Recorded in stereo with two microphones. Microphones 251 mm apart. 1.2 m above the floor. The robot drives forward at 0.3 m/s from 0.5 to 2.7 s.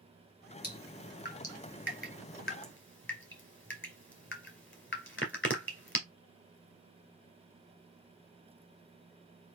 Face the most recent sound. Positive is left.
turn(degrees=50)  # may be behind; listen again after turning